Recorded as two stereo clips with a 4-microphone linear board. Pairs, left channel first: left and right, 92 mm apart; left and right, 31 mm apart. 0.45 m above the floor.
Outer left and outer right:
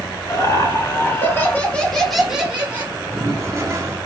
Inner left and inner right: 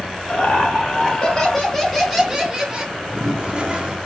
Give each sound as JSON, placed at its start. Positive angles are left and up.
{"t": 0.3, "sound": "laughter", "side_deg": 40, "distance_m": 2.0}
{"t": 2.9, "sound": "a toilet flushing", "side_deg": -30, "distance_m": 1.2}